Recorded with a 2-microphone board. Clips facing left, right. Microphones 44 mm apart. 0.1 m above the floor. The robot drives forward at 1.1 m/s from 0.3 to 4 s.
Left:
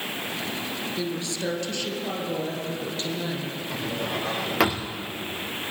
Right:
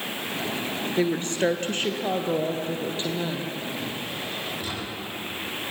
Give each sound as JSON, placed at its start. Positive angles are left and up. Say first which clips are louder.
{"t": 1.0, "sound": "a woman speaking", "louder": "right 9 dB", "side_deg": -45, "distance_m": 1.8}
{"t": 3.7, "sound": "a drawer", "louder": "left 3 dB", "side_deg": 85, "distance_m": 3.5}